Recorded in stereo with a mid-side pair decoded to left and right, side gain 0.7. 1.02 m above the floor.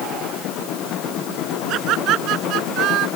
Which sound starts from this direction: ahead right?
Laughter, at 1.7 s.